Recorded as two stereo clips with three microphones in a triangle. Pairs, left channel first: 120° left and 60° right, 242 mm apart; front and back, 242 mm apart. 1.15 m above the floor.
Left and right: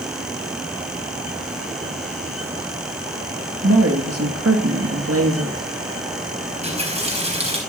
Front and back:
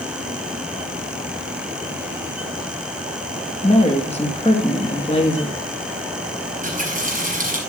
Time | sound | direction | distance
3.6 | a woman speaking | 65° right | 2 m
6.5 | a running tap | 125° right | 4.5 m